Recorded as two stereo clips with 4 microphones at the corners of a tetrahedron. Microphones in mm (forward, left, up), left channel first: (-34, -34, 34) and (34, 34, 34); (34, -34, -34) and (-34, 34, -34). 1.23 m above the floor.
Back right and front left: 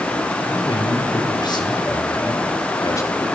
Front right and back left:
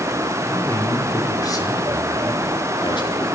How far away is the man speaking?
About 5 m.